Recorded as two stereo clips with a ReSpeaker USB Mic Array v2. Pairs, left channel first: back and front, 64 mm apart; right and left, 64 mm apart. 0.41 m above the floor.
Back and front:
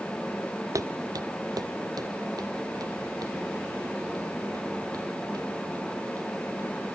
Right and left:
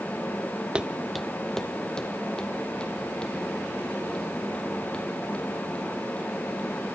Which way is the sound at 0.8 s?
15° left.